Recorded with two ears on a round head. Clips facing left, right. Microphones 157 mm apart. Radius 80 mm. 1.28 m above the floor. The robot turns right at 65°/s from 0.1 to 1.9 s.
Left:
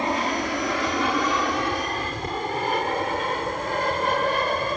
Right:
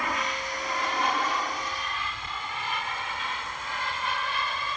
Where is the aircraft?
25° left (ahead or behind); by 4.8 s 40° left (ahead or behind).